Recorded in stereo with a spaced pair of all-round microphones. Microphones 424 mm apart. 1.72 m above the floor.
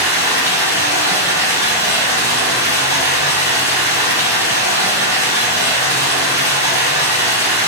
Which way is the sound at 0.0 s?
5° right (ahead or behind).